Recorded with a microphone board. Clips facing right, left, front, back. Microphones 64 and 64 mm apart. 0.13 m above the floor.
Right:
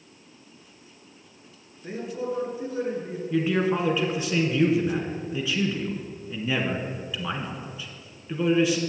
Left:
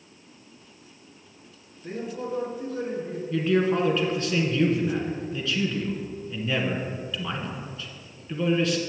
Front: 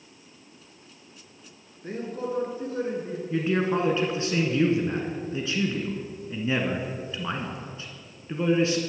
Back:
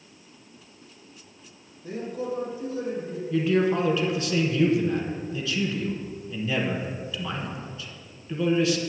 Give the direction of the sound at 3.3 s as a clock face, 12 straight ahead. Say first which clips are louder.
Left 1 dB, back 2 dB; 1 o'clock.